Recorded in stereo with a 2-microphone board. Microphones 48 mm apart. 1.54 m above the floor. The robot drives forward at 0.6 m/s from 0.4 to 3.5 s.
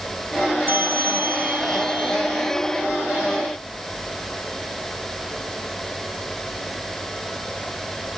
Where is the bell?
50° right (ahead or behind); by 2.2 s 45° right (ahead or behind).